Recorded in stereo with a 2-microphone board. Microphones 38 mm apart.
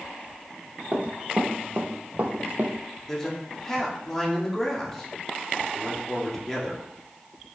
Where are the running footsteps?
45° right (ahead or behind), 1.8 m; by 2.8 s 50° right (ahead or behind), 1.2 m.